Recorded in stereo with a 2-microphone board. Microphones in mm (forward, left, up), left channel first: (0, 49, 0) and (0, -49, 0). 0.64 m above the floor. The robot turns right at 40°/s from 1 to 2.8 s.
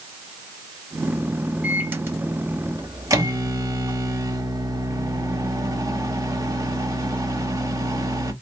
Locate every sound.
1.6 s a microwave: 160° right, 0.8 m; by 8.3 s 110° right, 0.8 m